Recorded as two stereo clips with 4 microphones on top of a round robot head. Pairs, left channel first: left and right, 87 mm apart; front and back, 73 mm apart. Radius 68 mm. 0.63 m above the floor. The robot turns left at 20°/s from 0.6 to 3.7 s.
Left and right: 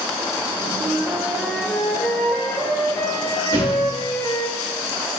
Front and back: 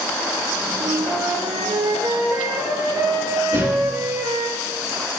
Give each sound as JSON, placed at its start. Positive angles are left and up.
{"t": 0.8, "sound": "a flute", "azimuth_deg": -165, "distance_m": 1.9}
{"t": 3.5, "sound": "a thud", "azimuth_deg": -150, "distance_m": 4.5}